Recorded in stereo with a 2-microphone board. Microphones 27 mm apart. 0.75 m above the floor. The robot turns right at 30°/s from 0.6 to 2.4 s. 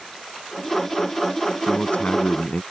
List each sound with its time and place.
1.7 s a man speaking: 70° left (ahead or behind); by 2.6 s 50° left (ahead or behind)